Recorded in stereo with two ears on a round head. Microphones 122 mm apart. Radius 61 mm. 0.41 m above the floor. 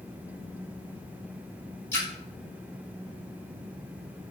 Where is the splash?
20° left (ahead or behind), 1.7 m.